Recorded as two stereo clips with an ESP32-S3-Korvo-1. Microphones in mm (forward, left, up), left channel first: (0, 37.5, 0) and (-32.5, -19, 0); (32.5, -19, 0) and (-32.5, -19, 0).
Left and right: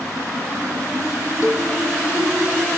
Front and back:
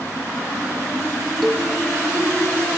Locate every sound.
1.4 s a cowbell: 90° left, 2.5 m